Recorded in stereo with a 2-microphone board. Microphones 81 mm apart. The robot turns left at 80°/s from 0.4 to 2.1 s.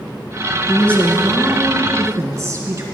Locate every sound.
0.7 s a woman speaking: 40° left, 1.6 m; by 2.8 s 70° right, 1.6 m